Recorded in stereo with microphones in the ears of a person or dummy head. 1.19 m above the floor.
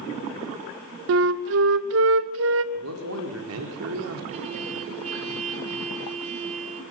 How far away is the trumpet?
About 3.5 m.